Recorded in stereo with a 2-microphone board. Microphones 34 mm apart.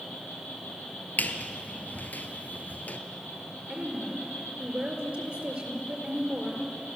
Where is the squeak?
60° left (ahead or behind), 1.3 m.